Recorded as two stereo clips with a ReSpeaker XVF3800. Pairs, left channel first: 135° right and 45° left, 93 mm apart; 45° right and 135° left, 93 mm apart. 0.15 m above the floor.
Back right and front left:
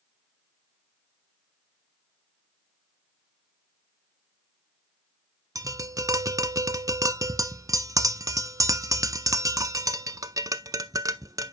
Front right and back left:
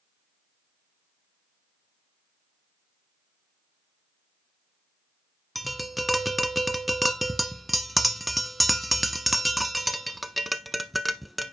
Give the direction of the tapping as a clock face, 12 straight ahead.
10 o'clock.